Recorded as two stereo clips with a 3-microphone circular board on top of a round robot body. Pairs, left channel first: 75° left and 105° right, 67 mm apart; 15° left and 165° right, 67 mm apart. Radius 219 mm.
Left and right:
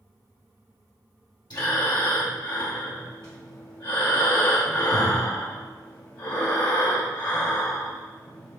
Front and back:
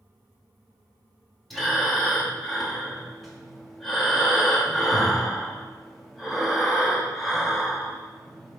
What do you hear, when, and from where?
1.5 s breathing: 100° left, 1.6 m